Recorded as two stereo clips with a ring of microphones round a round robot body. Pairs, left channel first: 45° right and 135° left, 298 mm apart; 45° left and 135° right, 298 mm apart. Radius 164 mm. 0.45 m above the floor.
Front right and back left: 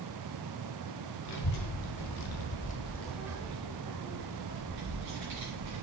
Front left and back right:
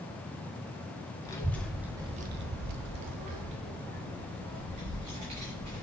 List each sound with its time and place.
1.2 s a child speaking: 35° right, 1.4 m; by 5.8 s 175° right, 3 m